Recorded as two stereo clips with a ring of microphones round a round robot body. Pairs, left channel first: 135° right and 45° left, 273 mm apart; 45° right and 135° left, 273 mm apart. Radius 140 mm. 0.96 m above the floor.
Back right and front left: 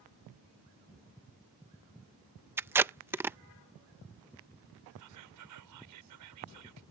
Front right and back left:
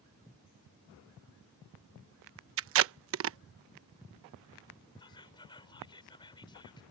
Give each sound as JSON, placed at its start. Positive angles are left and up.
{"t": 2.6, "sound": "tape being pulled", "azimuth_deg": 125}
{"t": 5.0, "sound": "whispering", "azimuth_deg": 30}